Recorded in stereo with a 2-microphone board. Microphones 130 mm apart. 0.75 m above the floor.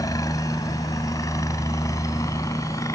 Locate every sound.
0.0 s a helicopter: 25° left (ahead or behind)